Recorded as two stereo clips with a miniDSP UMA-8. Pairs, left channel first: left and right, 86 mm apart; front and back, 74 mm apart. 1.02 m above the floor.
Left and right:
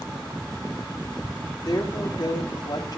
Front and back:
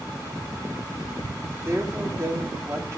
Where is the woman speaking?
130° left, 3.5 m.